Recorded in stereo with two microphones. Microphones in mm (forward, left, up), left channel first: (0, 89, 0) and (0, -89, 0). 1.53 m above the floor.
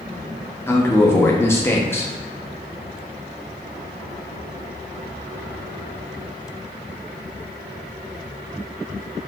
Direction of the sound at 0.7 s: 15° left (ahead or behind).